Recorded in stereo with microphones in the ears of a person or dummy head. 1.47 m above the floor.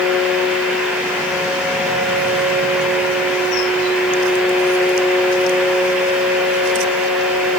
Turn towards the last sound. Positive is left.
No sound to turn to.